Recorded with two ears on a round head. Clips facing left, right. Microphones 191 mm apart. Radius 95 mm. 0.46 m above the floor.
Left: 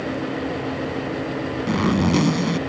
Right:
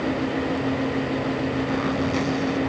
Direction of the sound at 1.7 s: 70° left (ahead or behind).